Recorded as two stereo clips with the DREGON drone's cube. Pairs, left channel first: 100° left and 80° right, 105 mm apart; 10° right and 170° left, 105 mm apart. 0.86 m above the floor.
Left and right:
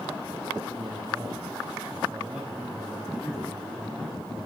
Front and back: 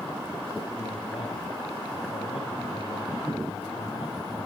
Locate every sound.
0.8 s a man speaking: 15° right, 5 m; by 4.5 s 15° left, 5 m